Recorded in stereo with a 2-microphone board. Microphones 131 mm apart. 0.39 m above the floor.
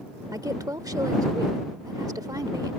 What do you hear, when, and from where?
0.3 s a woman speaking: 25° right (ahead or behind)